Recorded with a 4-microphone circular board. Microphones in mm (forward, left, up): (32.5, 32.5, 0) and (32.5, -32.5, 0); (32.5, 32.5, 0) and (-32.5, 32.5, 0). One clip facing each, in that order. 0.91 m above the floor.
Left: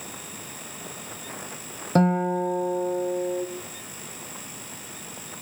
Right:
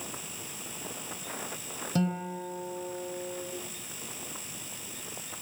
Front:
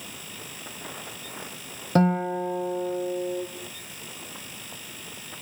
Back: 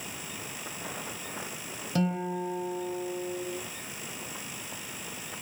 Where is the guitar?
45° left, 3 m.